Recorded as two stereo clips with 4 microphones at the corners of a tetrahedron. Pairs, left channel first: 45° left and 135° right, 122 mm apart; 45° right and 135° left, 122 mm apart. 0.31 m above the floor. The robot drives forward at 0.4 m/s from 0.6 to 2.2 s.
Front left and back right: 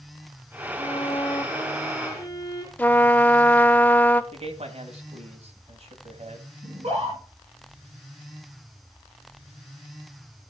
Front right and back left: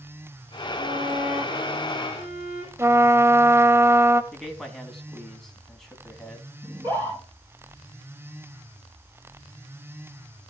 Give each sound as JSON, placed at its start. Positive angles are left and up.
{"t": 0.8, "sound": "a violin", "azimuth_deg": 95, "distance_m": 3.0}
{"t": 2.8, "sound": "a trumpet", "azimuth_deg": 105, "distance_m": 0.6}
{"t": 4.3, "sound": "a man speaking", "azimuth_deg": -130, "distance_m": 1.8}
{"t": 6.6, "sound": "a scream", "azimuth_deg": -165, "distance_m": 3.5}